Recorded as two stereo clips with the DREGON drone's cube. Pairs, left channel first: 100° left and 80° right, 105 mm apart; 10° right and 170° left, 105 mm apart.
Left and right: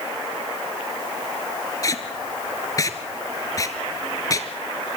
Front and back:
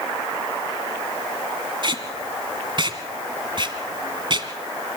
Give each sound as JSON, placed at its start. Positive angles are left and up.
{"t": 1.8, "sound": "tape being pulled", "azimuth_deg": 145, "distance_m": 1.6}